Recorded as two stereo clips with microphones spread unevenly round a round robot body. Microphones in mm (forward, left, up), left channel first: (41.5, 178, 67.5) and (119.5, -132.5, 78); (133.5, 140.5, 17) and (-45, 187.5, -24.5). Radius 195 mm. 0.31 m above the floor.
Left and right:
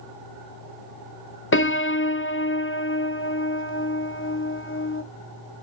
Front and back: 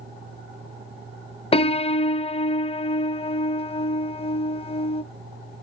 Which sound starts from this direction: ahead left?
A piano, at 1.5 s.